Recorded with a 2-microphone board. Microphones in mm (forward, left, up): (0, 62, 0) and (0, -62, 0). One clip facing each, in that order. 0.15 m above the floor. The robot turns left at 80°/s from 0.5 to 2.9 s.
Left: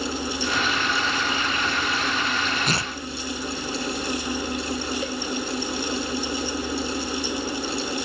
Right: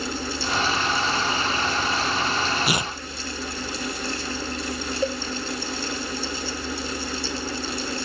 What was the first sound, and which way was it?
Tearing paper, 5° right (ahead or behind).